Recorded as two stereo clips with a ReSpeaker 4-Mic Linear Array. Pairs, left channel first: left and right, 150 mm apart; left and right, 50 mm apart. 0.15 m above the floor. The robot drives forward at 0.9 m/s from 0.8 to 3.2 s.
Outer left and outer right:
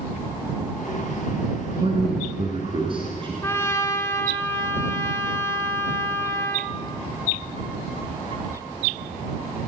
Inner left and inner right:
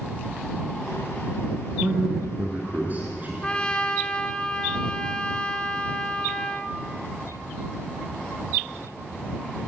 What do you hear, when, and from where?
1.8 s a man speaking: 40° right (ahead or behind), 1.5 m; by 3.3 s 35° right (ahead or behind), 1.8 m
3.4 s a trumpet: 20° left (ahead or behind), 0.8 m